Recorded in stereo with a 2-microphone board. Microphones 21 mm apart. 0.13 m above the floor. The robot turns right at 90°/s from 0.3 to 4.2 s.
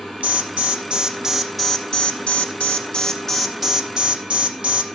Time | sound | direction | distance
0.2 | an alarm | 105° right | 3.5 m